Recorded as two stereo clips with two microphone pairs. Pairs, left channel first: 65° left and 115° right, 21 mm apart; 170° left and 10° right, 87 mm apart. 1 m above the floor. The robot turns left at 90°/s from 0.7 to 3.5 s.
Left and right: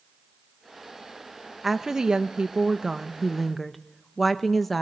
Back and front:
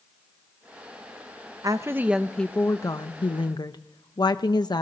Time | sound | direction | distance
1.6 | a woman speaking | 45° right | 0.8 m